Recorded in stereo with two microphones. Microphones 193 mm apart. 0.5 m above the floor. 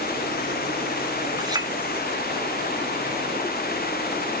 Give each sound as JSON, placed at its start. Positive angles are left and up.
{"t": 1.4, "sound": "a clink", "side_deg": -20, "distance_m": 0.7}